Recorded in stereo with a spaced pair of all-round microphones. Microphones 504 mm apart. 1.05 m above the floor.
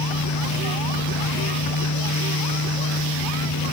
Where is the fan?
45° left (ahead or behind), 1.4 m.